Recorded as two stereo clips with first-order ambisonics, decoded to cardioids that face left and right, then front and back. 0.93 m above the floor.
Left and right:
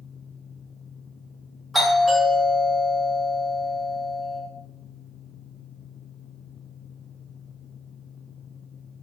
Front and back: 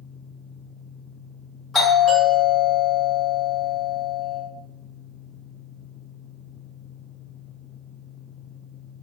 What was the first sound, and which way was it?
A doorbell, 5° left.